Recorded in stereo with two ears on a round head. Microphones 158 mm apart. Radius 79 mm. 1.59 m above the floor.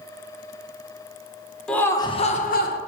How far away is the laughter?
About 1.1 m.